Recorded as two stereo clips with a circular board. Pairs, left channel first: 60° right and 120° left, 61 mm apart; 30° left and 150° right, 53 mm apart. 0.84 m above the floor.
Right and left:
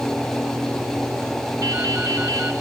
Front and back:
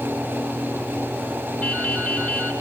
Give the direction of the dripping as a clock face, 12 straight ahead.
9 o'clock.